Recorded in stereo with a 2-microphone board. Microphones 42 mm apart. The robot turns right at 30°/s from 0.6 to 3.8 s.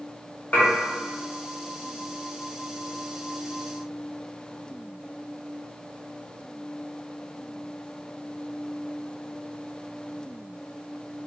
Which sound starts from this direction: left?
Dishes clattering, at 0.5 s.